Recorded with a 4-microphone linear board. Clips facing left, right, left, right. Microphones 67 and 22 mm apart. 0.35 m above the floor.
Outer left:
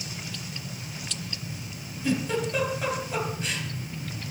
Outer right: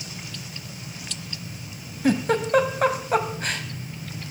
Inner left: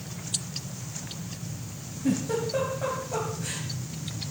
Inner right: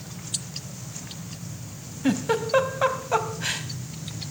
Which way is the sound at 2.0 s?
50° right (ahead or behind).